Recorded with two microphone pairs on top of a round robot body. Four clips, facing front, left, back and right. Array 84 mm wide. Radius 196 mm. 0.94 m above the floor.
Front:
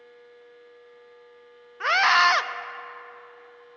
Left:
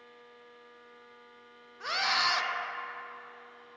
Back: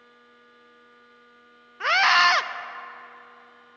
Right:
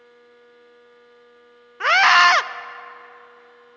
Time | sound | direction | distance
1.8 | a scream | 85° right | 0.6 m